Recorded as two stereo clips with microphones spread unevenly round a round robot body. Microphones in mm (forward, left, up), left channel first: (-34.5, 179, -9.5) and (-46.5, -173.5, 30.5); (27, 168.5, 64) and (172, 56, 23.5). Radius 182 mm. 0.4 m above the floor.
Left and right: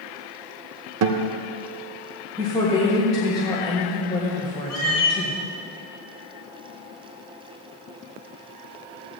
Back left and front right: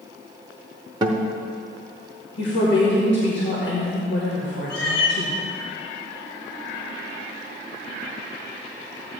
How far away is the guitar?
About 0.7 m.